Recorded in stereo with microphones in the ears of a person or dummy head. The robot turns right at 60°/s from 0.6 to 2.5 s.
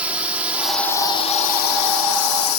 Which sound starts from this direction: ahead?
A drone, at 0.0 s.